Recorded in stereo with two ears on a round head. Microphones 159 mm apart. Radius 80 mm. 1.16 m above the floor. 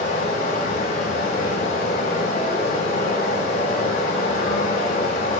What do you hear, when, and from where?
0.0 s running water: 55° left (ahead or behind), 5.5 m